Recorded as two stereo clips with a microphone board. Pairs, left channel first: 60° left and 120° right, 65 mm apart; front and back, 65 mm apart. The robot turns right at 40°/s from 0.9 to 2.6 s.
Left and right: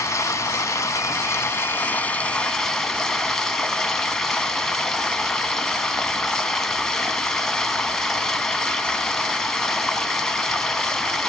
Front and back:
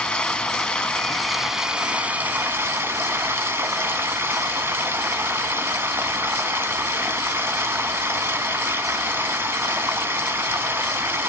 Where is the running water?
75° left, 0.9 m; by 11.3 s 140° left, 0.9 m.